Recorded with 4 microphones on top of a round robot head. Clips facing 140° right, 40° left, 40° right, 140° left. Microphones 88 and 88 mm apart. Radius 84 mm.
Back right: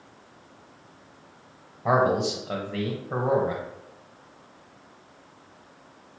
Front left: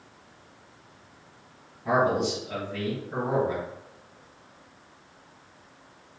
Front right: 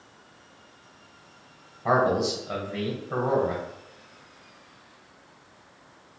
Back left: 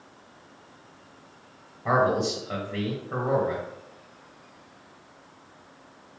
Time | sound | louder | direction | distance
1.9 | a man speaking | back right 2 dB, even | 115° right | 0.9 m